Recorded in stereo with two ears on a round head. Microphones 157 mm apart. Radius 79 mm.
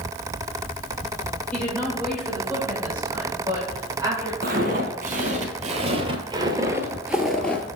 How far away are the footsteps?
About 1.8 m.